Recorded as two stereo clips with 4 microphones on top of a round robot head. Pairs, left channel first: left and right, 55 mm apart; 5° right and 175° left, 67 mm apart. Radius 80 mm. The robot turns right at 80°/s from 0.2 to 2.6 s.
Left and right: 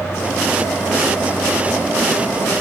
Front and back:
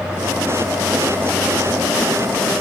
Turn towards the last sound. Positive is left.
No sound to turn to.